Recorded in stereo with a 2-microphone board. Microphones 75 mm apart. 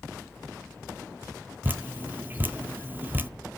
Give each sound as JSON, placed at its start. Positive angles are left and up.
{"t": 1.6, "sound": "dripping", "side_deg": -25, "distance_m": 0.5}